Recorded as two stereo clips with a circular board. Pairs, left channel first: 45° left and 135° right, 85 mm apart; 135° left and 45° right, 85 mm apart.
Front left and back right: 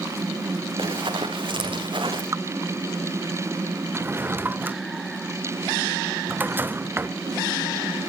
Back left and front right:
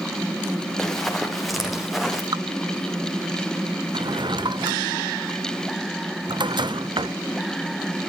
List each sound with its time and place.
0.8 s running footsteps: 140° right, 3.5 m; by 2.2 s 130° right, 5 m
2.3 s dripping: 80° right, 0.6 m
3.9 s a drawer: 70° right, 0.7 m